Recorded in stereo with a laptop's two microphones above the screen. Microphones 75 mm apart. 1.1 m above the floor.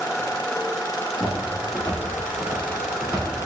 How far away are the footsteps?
About 1.6 m.